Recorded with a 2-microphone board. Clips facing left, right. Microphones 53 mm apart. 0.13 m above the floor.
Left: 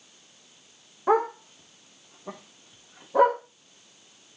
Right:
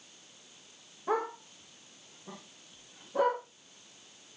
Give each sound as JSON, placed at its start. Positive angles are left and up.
{"t": 1.1, "sound": "a dog barking", "side_deg": 70, "distance_m": 3.0}